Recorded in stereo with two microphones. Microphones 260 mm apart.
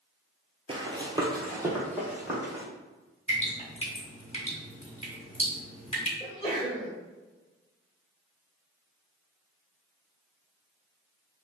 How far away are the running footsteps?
About 0.5 m.